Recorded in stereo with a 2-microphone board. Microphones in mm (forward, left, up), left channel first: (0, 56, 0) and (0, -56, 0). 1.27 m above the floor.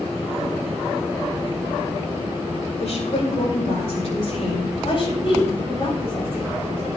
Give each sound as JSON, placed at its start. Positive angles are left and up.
{"t": 2.8, "sound": "a woman speaking", "side_deg": 70, "distance_m": 6.5}
{"t": 4.8, "sound": "a woman speaking", "side_deg": 50, "distance_m": 8.0}